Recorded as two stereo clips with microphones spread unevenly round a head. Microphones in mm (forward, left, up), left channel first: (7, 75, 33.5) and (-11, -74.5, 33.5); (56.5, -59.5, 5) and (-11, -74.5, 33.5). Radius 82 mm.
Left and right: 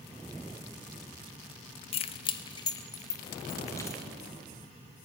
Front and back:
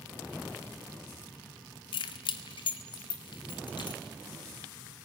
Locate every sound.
1.9 s keys jangling: 30° left, 0.8 m; by 4.0 s 10° left, 1.9 m